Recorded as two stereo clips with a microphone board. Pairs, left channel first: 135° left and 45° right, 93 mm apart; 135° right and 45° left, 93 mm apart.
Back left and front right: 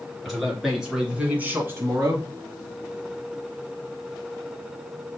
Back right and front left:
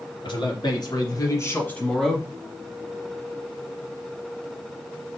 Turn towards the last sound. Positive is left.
turn(degrees=-30)